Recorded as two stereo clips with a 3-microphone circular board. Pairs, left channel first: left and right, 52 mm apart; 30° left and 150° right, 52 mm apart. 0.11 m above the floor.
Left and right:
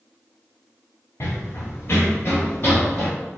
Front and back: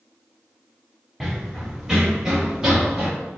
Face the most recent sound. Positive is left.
turn(degrees=135)